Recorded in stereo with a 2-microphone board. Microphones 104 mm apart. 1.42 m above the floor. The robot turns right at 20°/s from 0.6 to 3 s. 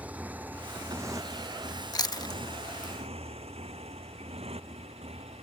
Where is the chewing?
40° left (ahead or behind).